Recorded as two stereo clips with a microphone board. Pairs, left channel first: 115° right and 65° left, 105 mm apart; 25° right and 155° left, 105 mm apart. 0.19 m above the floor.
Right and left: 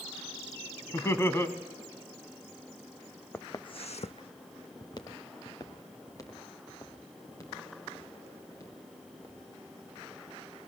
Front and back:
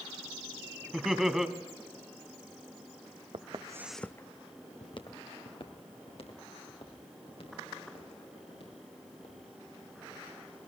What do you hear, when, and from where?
0.9 s laughter: 120° right, 1.1 m
3.3 s footsteps: 175° left, 0.8 m; by 9.9 s 50° right, 8.5 m